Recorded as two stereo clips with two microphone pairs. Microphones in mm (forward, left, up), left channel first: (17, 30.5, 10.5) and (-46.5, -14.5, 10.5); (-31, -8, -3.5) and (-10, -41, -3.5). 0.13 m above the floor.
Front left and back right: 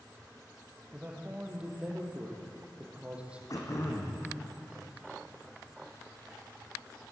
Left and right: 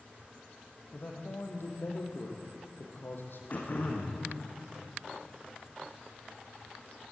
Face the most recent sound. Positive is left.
turn(degrees=80)